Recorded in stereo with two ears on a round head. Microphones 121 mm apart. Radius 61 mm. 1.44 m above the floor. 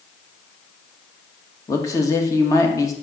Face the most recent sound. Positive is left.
turn(degrees=25)  # may be behind; listen again after turning